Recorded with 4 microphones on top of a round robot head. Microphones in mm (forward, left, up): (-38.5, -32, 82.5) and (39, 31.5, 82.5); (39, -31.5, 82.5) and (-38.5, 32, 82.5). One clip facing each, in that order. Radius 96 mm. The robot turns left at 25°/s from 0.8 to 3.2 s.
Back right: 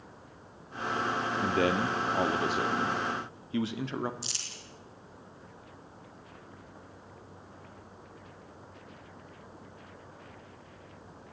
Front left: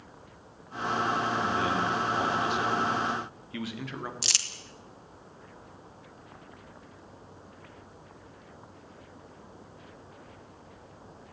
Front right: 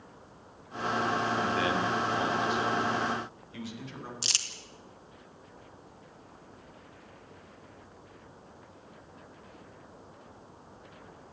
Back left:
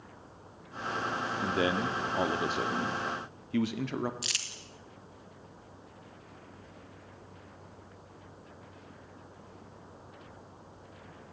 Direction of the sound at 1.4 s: 155° right.